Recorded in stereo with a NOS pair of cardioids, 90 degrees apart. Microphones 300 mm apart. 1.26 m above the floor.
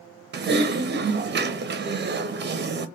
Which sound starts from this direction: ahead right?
Typing on a keyboard, at 0.3 s.